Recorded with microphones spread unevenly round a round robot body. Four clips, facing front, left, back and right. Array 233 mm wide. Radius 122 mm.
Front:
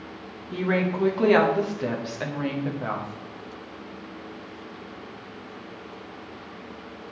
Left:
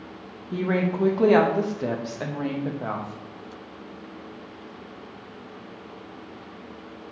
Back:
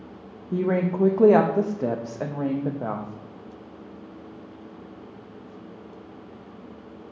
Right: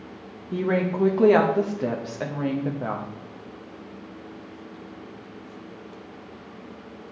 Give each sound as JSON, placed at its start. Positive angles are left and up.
{"t": 0.5, "sound": "a woman speaking", "azimuth_deg": -165, "distance_m": 0.6}